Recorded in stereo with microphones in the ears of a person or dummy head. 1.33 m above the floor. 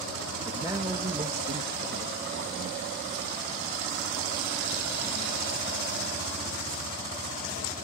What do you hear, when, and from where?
0.5 s a man speaking: 10° right (ahead or behind), 1.8 m; by 3.0 s 75° right (ahead or behind), 2 m